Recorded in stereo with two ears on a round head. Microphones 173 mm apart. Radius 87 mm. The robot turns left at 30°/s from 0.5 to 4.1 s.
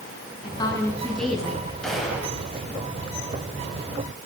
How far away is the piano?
No piano in this recording.